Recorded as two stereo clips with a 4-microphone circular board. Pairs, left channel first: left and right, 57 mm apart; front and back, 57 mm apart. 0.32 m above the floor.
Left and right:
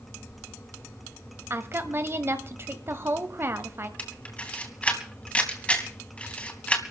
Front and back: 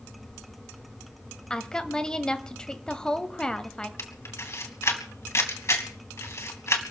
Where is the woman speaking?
70° right, 1.6 m.